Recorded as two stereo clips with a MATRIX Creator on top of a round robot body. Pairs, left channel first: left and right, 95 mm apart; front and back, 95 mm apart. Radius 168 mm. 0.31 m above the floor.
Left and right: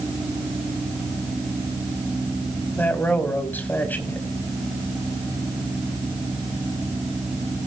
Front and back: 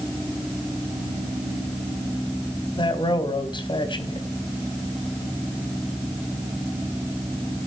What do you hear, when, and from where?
2.8 s a man speaking: 20° left, 2.5 m